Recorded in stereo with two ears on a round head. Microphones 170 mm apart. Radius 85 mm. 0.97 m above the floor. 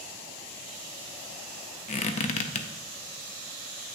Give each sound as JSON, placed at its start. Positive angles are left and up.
{"t": 1.9, "sound": "a squeak", "side_deg": 35, "distance_m": 0.5}